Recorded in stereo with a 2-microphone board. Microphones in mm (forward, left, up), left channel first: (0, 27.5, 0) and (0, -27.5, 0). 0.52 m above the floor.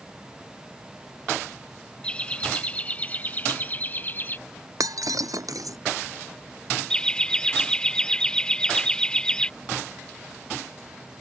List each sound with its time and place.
2.0 s laughter: 20° left (ahead or behind); by 4.4 s 35° left (ahead or behind)
4.8 s breaking glass: 90° right
6.9 s laughter: 15° left (ahead or behind)